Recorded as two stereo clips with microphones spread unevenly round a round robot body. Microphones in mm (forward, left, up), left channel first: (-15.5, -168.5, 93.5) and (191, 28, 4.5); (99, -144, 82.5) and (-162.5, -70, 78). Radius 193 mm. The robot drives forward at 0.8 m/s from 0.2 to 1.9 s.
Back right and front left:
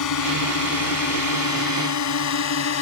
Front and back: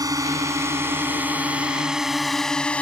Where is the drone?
120° right; by 2.8 s 100° right.